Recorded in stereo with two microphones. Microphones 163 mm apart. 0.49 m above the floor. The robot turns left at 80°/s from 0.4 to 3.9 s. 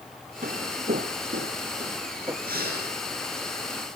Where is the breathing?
65° right, 9.5 m; by 2.9 s 105° right, 9.5 m.